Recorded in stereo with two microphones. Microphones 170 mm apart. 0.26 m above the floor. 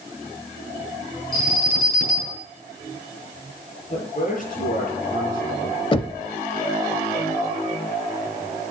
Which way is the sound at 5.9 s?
30° left (ahead or behind).